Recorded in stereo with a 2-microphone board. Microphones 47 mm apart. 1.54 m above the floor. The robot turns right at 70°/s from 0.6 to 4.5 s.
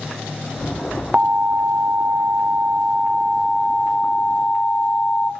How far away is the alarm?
About 0.6 m.